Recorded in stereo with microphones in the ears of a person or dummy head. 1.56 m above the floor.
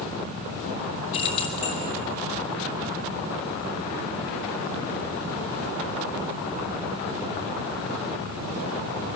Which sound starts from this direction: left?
Keys jangling, at 1.1 s.